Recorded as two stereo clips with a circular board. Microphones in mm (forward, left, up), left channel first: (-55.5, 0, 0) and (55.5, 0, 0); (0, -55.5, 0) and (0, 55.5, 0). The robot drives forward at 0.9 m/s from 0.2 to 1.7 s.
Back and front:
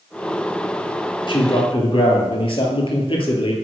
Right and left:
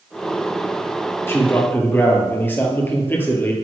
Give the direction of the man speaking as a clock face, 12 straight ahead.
5 o'clock.